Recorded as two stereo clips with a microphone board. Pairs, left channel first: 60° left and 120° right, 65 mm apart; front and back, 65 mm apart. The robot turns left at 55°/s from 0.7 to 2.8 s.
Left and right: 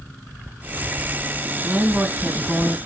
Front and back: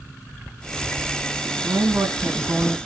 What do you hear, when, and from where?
1.6 s a woman speaking: 175° right, 1.4 m; by 2.8 s 125° left, 1.4 m